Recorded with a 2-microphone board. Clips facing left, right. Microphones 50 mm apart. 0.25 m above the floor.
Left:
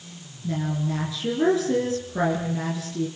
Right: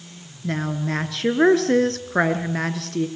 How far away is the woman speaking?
About 3.5 m.